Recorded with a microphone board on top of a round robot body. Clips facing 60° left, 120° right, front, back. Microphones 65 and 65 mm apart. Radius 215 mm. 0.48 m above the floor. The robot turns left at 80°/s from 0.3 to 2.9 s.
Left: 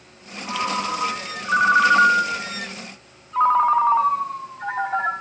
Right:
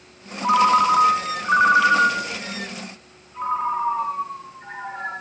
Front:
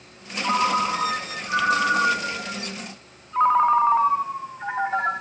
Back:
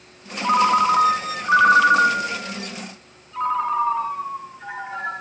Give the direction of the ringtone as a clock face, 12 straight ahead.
4 o'clock.